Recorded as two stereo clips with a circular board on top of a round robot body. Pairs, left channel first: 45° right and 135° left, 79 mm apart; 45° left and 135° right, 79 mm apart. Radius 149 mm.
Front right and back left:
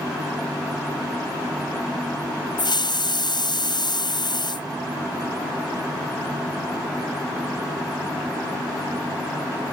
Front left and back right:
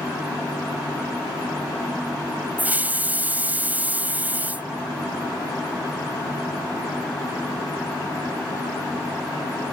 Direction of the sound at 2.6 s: 65° right.